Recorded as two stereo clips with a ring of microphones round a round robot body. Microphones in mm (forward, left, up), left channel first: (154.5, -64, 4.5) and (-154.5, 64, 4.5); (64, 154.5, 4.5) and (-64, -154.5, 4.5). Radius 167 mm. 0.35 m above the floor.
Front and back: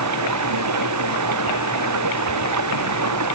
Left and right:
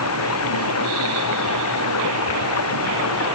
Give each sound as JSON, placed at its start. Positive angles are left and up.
{"t": 0.0, "sound": "running water", "azimuth_deg": 115}